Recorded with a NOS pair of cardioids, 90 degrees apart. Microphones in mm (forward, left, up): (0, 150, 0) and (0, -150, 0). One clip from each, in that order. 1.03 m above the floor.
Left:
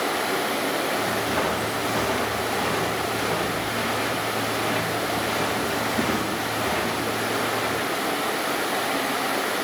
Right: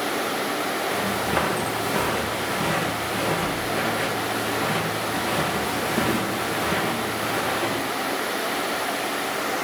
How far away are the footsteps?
About 5.5 m.